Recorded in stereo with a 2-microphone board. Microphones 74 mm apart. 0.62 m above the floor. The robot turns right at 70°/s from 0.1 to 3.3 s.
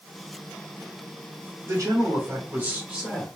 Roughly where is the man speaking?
Behind right.